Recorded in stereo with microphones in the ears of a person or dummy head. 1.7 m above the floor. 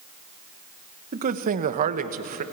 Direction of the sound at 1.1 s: 40° right (ahead or behind).